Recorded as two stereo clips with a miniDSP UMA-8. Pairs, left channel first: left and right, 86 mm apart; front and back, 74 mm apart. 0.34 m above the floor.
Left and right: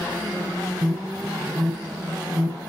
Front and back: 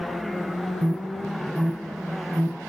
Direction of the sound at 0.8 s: 135° right.